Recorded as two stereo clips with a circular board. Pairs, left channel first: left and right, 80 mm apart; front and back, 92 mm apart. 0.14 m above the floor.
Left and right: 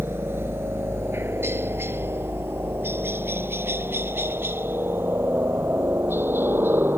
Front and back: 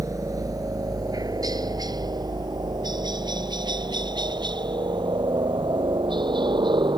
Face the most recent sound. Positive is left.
turn(degrees=-150)